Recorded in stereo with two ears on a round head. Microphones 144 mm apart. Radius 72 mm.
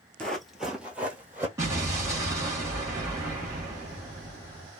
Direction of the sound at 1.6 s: 20° right (ahead or behind).